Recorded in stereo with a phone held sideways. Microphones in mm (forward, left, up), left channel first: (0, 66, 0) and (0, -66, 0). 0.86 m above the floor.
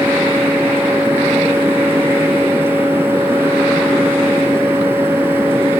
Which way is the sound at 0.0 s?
15° right (ahead or behind).